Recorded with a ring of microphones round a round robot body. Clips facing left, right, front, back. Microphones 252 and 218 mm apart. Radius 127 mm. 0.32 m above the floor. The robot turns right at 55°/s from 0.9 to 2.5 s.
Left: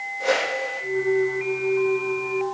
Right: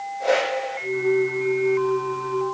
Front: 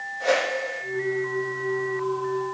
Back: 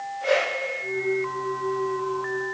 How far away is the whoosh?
About 8.5 m.